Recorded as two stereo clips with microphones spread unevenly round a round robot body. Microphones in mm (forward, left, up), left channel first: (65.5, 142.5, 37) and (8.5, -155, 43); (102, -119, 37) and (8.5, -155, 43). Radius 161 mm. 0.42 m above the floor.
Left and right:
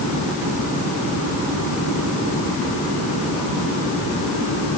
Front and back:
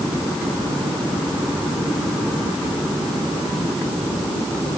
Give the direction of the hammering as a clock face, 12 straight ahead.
I don't hear hammering.